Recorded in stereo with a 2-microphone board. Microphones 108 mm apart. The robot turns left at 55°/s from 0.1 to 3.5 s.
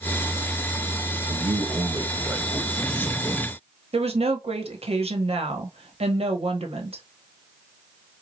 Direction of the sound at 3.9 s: 70° right (ahead or behind).